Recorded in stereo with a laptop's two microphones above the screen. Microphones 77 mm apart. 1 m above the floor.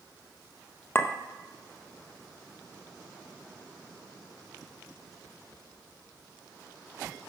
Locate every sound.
0.9 s a clink: 30° left (ahead or behind), 0.6 m